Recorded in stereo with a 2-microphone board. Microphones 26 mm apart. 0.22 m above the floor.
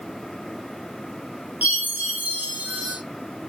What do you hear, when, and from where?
1.6 s a chime: 85° right, 4.5 m